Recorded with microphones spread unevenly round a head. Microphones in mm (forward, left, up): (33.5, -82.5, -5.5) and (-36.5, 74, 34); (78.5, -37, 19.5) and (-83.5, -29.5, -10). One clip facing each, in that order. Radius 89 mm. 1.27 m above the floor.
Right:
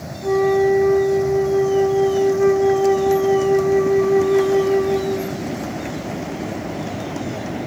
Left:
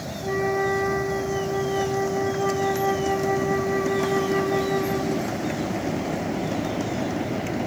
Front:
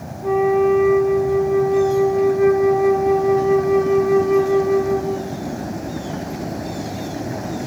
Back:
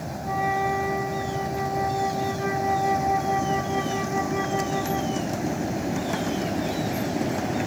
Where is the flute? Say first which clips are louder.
Right 9 dB, front 11 dB; 35° left, 6 m.